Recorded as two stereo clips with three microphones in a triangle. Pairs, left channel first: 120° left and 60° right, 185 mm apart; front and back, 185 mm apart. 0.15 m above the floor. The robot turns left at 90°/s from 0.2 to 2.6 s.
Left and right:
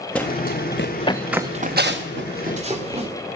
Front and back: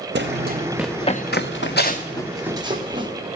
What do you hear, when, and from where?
0.1 s running footsteps: 155° right, 0.7 m; by 3.1 s 115° right, 2.5 m